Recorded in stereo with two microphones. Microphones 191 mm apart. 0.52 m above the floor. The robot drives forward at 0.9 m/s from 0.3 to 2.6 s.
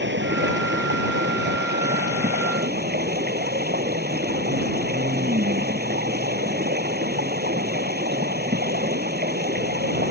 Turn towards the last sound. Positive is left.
turn(degrees=-55)  # may be behind; listen again after turning